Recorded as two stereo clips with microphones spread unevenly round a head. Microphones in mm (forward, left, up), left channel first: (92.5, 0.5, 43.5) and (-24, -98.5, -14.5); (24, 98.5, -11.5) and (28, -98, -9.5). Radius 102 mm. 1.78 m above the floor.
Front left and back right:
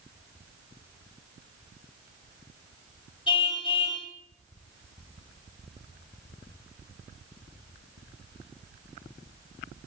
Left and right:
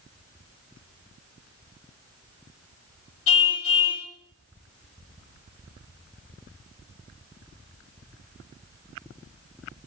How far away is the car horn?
About 4.5 m.